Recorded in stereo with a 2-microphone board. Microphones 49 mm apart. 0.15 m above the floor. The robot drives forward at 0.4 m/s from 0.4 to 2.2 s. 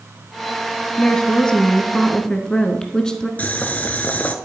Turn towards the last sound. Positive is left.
turn(degrees=30)  # may be behind; listen again after turning